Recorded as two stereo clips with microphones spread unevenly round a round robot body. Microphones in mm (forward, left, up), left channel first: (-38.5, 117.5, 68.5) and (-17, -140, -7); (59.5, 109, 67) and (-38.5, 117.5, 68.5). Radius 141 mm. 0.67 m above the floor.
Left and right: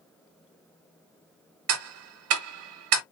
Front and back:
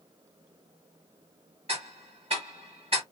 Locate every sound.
1.7 s ticking: 125° right, 0.6 m